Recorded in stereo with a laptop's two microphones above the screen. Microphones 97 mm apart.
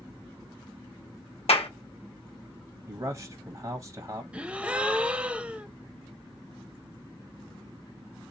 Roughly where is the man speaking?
Right.